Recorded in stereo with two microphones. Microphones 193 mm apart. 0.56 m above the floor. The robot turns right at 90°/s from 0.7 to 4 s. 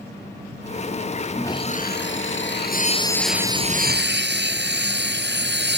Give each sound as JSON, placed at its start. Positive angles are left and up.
{"t": 1.3, "sound": "sawing", "azimuth_deg": 5}